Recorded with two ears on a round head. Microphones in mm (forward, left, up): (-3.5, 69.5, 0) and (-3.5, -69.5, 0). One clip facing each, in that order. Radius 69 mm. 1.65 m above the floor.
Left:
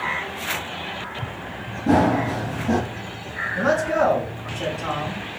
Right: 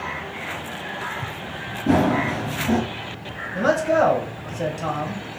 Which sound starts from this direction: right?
A man speaking, at 3.5 s.